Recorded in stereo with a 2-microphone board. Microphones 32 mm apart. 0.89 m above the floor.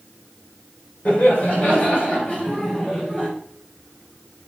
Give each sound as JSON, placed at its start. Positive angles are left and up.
{"t": 1.1, "sound": "laughter", "side_deg": 40, "distance_m": 3.0}